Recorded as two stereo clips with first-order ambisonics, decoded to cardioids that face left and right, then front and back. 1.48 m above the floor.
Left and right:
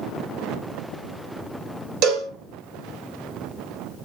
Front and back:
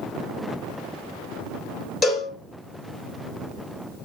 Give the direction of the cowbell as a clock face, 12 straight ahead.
2 o'clock.